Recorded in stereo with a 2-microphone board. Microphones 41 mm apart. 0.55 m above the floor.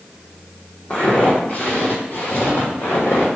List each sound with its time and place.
0.9 s footsteps: 30° left (ahead or behind), 1.2 m; by 3.3 s 65° left (ahead or behind), 1.3 m